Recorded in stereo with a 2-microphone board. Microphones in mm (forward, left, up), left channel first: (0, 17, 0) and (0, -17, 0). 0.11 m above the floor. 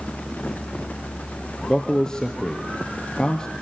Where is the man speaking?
20° left (ahead or behind), 2.5 m.